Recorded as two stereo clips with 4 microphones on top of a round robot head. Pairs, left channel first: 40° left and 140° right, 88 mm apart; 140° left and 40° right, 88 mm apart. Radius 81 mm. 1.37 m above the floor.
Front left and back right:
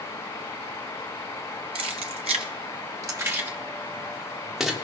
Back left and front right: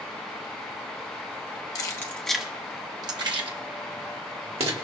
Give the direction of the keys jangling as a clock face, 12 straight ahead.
6 o'clock.